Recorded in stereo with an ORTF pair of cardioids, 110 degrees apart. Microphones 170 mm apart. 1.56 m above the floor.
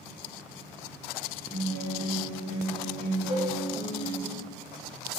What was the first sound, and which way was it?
A guitar, 40° right.